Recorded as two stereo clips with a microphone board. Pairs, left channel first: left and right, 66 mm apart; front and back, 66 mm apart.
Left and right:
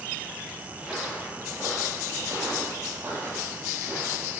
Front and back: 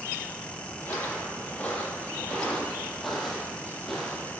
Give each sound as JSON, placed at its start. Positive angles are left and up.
{"t": 0.8, "sound": "footsteps", "azimuth_deg": -25, "distance_m": 1.8}